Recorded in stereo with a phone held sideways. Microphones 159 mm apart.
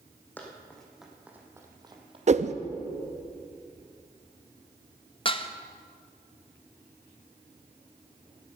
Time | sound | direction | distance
0.4 | running footsteps | 10° left (ahead or behind) | 2.5 m
2.3 | a whoosh | 45° right (ahead or behind) | 0.5 m
5.2 | dishes clattering | 35° left (ahead or behind) | 0.6 m